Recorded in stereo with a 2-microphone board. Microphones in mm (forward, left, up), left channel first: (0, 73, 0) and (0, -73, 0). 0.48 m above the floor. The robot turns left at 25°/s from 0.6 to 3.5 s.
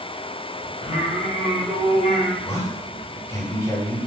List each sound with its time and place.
0.8 s singing: 85° left, 1.4 m; by 2.4 s 45° left, 1.4 m
2.5 s a man speaking: 15° left (ahead or behind), 1.0 m; by 4.0 s 20° left (ahead or behind), 1.0 m